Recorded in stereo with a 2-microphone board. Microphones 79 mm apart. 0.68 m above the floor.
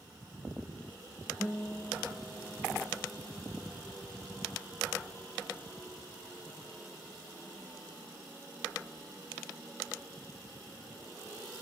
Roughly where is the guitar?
Centre.